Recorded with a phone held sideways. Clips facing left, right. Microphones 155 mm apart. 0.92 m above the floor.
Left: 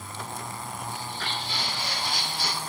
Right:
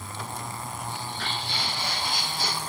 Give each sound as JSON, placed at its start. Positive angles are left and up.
{"t": 0.9, "sound": "footsteps", "side_deg": -70, "distance_m": 2.5}